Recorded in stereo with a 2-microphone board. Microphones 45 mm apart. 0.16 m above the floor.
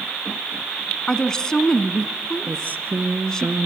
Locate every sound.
1.1 s a woman speaking: 15° left (ahead or behind), 1.7 m
2.5 s a woman speaking: 45° right (ahead or behind), 2.0 m